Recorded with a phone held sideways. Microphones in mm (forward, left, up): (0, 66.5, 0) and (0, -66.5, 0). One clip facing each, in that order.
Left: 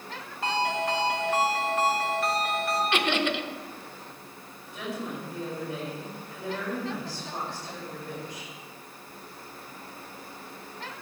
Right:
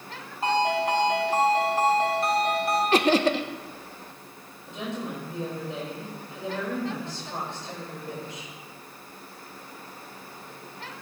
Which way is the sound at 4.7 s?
25° right (ahead or behind).